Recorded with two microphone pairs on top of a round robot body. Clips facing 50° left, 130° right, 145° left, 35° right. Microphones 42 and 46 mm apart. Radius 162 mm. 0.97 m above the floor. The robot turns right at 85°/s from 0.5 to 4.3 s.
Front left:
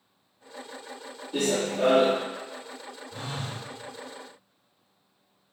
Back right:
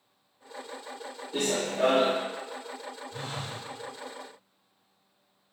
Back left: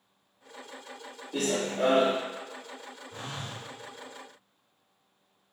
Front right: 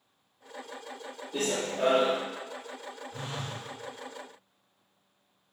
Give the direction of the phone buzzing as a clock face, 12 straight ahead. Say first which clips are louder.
Front left 3 dB, even; 8 o'clock.